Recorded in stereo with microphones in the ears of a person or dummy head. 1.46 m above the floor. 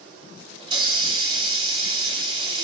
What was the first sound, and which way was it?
A hiss, 25° right (ahead or behind).